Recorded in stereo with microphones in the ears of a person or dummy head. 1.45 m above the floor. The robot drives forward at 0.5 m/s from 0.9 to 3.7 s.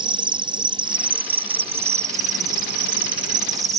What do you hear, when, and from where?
0.0 s an insect: 25° right (ahead or behind); by 3.8 s 35° right (ahead or behind)